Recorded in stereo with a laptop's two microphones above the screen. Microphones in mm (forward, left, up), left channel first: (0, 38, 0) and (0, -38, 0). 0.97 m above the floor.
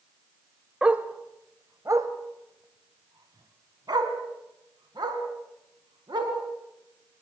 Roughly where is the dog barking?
Centre.